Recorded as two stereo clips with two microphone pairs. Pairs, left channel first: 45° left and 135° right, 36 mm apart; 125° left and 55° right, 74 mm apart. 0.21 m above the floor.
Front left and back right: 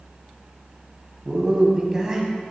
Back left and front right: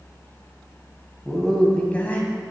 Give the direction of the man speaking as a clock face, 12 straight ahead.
5 o'clock.